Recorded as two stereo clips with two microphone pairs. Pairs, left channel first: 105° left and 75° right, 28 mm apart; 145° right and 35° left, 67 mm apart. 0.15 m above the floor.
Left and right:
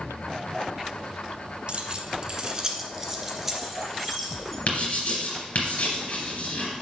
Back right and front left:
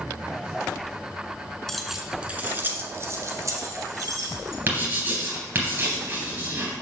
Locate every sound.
1.7 s keys jangling: 65° right, 1.0 m; by 4.6 s 10° left, 2.5 m
4.7 s writing: 85° left, 3 m